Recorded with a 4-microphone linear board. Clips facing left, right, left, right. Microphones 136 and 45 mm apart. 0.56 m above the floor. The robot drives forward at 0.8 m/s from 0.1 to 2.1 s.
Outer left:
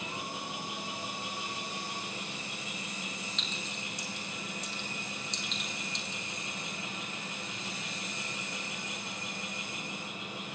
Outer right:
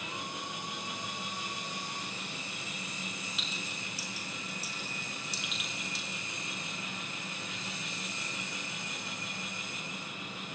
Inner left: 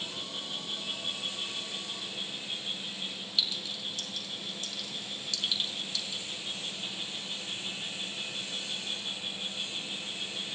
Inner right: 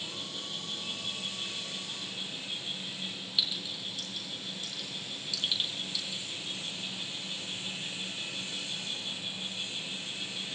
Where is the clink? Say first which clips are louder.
Outer left 1 dB, even; 5° right (ahead or behind), 5 m.